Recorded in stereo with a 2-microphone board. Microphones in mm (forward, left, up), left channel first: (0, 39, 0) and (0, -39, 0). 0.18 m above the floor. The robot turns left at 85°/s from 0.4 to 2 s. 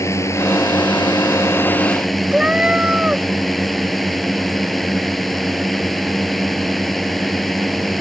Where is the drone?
135° left; by 8.0 s straight ahead.